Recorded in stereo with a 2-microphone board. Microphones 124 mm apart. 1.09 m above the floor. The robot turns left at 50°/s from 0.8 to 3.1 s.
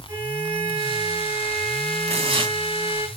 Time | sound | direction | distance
0.1 | a violin | 20° right | 3.5 m
2.1 | tearing paper | 60° right (ahead or behind) | 1.8 m